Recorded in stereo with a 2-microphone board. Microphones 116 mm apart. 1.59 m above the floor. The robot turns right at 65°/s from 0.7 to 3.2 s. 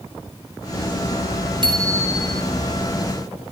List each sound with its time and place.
1.6 s a bicycle bell: 45° right, 5 m; by 2.4 s 10° left, 5 m